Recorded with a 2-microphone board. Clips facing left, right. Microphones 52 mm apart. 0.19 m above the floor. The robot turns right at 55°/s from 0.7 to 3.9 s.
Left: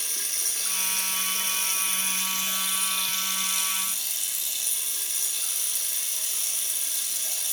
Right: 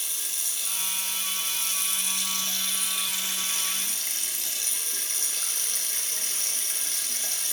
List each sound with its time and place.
0.0 s running water: 65° left, 0.9 m; by 7.5 s 120° right, 0.9 m